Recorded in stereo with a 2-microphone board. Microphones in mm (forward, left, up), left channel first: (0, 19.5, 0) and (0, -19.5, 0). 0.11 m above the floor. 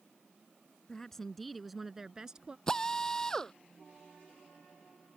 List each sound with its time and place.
0.9 s a woman speaking: 15° left (ahead or behind); by 2.6 s 20° right (ahead or behind)
2.7 s a drill: 15° left (ahead or behind)